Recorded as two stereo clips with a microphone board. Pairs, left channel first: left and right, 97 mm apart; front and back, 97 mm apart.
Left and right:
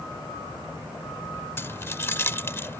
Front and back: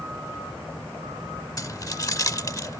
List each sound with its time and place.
1.6 s keys jangling: 35° left